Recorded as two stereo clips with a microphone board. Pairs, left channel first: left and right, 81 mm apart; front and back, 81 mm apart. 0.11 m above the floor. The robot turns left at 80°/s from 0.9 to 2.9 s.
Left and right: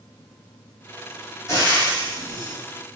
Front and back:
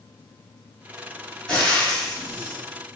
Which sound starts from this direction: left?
Frying, at 1.5 s.